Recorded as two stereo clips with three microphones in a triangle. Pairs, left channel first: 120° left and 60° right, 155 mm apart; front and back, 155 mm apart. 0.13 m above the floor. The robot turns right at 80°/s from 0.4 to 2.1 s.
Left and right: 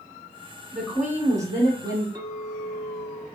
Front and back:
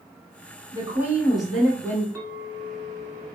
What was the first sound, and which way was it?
A woman speaking, 150° right.